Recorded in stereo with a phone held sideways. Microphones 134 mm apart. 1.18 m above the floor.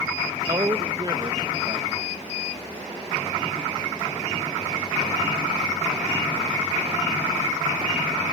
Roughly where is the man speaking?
Right.